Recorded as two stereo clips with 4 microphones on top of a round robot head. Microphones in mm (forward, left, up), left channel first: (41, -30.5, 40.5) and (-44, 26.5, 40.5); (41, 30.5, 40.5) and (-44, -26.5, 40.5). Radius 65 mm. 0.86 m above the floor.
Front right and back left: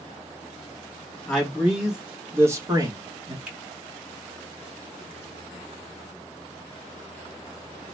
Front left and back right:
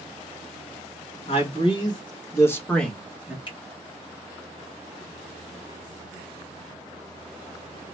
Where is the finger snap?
65° left, 1.6 m.